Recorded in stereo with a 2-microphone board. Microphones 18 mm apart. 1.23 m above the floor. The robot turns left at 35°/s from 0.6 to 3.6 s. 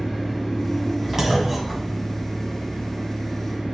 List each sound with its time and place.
0.0 s an engine running: 5° left, 3.5 m; by 3.7 s 100° right, 3.5 m
1.2 s a clunk: 30° right (ahead or behind), 1.0 m; by 2.4 s 10° left (ahead or behind), 1.0 m